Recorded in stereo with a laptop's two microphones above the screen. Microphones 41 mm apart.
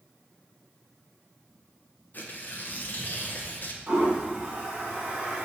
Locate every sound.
2.1 s tearing paper: 50° left (ahead or behind), 0.7 m
3.9 s a toilet flushing: 25° right (ahead or behind), 1.8 m